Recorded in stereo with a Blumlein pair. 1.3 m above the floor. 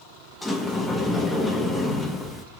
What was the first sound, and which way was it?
A sliding door, 5° left.